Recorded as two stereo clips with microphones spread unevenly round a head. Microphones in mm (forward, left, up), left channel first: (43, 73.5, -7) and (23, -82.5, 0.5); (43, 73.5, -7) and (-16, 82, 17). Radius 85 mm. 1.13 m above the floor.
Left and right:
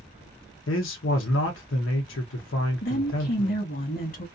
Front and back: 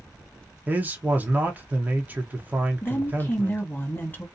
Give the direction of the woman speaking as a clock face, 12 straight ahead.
10 o'clock.